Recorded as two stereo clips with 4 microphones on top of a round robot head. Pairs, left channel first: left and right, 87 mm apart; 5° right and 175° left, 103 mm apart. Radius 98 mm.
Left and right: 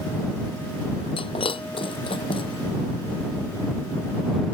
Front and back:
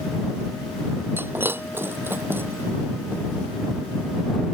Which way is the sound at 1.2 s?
105° left.